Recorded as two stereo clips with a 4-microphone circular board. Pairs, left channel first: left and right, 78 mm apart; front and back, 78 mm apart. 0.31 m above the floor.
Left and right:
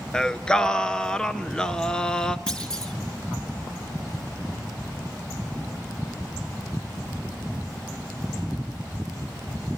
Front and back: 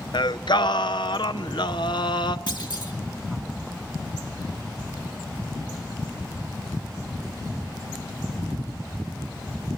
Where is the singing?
10° left, 0.7 m.